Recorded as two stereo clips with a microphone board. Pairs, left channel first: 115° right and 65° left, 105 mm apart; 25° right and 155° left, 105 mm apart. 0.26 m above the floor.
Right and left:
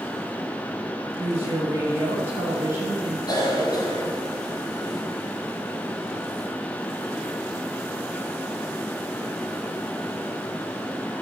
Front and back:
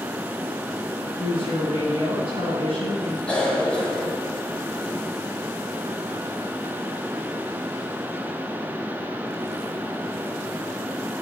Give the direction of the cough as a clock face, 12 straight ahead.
3 o'clock.